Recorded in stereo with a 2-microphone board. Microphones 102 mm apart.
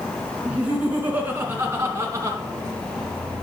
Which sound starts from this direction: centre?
Laughter, at 0.5 s.